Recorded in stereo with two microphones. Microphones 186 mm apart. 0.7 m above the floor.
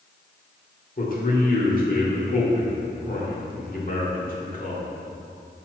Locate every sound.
1.0 s a man speaking: 50° left (ahead or behind), 1.8 m